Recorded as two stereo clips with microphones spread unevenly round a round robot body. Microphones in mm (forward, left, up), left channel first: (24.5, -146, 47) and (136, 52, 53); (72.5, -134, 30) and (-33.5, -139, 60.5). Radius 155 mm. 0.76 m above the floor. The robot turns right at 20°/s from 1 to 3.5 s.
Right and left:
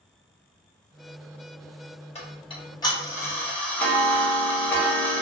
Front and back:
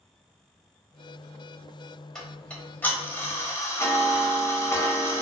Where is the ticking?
65° right, 0.9 m; by 5.2 s 40° right, 0.9 m.